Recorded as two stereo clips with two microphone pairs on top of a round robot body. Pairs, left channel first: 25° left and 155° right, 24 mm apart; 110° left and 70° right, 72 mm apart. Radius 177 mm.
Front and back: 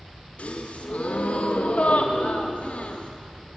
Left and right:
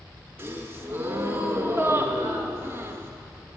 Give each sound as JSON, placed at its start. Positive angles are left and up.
{"t": 0.4, "sound": "a gasp", "azimuth_deg": -10, "distance_m": 0.6}